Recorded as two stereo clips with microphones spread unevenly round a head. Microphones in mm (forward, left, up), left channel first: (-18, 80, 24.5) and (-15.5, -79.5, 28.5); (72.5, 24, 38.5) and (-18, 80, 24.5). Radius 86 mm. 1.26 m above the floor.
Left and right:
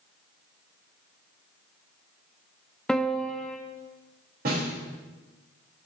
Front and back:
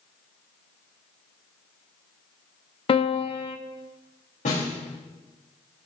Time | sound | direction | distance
2.9 | a piano | 5° left | 0.8 m
4.5 | a snare drum | 50° right | 3.5 m